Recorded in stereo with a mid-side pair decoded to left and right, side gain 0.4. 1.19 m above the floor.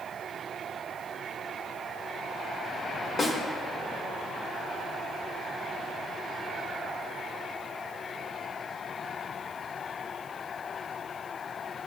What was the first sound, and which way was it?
A snare drum, 40° left.